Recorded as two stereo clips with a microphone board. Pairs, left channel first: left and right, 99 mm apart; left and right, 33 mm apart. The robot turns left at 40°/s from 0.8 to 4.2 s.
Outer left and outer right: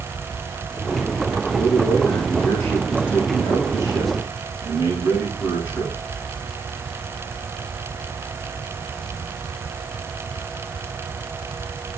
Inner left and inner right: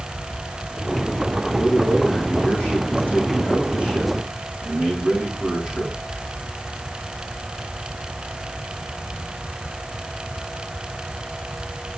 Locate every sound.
1.5 s a man speaking: 55° right, 7.5 m; by 6.0 s 165° right, 7.5 m